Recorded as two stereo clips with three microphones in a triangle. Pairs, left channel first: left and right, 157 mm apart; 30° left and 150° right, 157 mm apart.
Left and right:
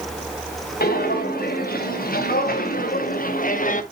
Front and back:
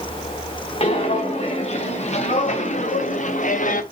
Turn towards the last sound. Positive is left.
turn(degrees=60)